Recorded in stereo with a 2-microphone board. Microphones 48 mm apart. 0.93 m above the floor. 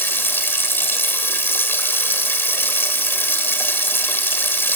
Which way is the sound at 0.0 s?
50° left (ahead or behind).